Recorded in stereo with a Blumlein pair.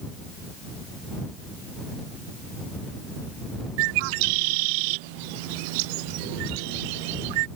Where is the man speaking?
I don't hear a man speaking.